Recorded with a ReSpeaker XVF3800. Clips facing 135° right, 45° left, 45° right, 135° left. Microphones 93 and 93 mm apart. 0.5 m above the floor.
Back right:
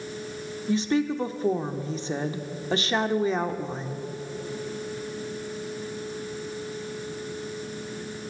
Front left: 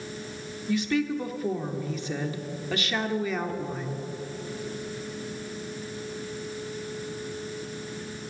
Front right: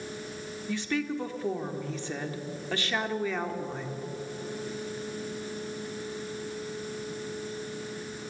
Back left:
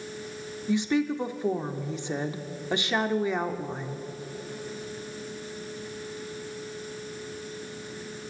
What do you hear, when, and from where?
0.7 s a woman speaking: 165° right, 0.8 m